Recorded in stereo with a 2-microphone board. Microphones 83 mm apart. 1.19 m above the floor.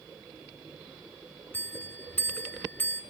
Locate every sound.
1.5 s a bell: 25° left (ahead or behind), 0.5 m